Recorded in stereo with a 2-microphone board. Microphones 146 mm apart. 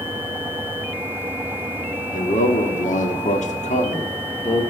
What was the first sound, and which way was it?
A man speaking, 60° left (ahead or behind).